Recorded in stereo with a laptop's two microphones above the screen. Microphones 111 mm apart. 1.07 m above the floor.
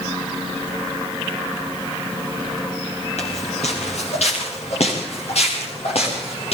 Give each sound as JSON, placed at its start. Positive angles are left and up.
{"t": 3.2, "sound": "footsteps", "side_deg": 75, "distance_m": 7.5}